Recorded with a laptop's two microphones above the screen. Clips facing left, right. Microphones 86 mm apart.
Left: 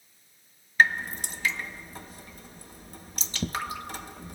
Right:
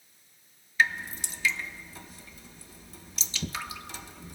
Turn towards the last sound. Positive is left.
turn(degrees=50)  # may be behind; listen again after turning